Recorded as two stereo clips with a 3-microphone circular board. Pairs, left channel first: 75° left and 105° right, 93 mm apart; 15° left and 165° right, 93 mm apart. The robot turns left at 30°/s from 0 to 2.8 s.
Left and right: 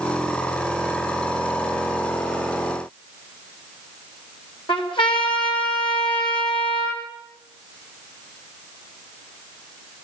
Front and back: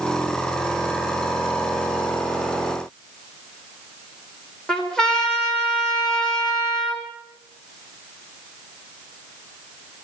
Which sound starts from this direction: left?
A trumpet, at 4.7 s.